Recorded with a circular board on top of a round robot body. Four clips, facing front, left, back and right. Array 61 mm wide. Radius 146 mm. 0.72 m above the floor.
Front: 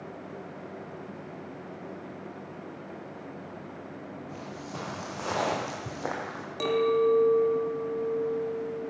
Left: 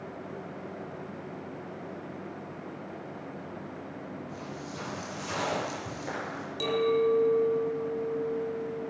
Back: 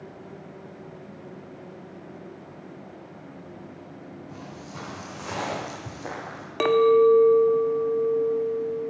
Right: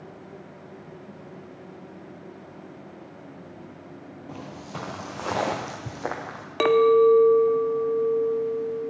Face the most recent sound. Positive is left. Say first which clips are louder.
# right 9 dB, back 7 dB
turn(degrees=-120)